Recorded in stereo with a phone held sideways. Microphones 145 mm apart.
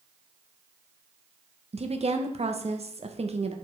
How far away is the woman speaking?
About 0.9 m.